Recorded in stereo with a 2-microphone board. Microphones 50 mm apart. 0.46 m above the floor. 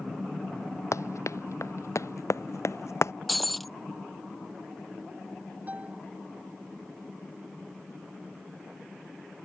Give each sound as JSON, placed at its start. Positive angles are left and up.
{"t": 0.9, "sound": "running footsteps", "side_deg": 75}
{"t": 3.3, "sound": "breaking glass", "side_deg": 0}
{"t": 5.7, "sound": "a piano", "side_deg": -35}